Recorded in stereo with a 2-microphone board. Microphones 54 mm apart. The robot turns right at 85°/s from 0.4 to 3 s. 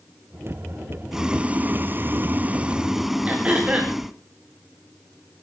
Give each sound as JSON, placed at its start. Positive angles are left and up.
{"t": 1.1, "sound": "boiling", "azimuth_deg": -170, "distance_m": 0.9}
{"t": 3.3, "sound": "throat clearing", "side_deg": -25, "distance_m": 4.0}